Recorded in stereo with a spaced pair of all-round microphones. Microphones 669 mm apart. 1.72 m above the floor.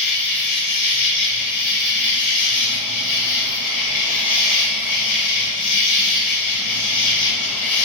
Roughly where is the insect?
Left.